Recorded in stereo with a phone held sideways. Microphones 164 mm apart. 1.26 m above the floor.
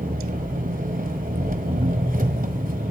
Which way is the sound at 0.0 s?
55° right (ahead or behind).